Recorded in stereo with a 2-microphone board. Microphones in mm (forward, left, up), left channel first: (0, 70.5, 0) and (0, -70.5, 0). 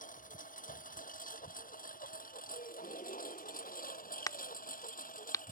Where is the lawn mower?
70° left (ahead or behind); by 5.5 s 75° left (ahead or behind).